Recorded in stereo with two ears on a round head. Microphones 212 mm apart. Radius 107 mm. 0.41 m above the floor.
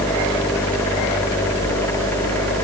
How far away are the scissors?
No scissors in this recording.